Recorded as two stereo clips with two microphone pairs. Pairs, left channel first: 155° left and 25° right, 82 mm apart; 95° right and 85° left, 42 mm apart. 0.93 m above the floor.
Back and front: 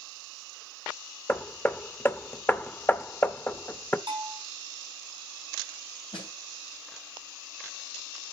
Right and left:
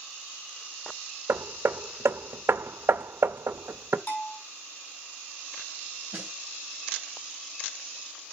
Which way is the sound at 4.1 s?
60° right.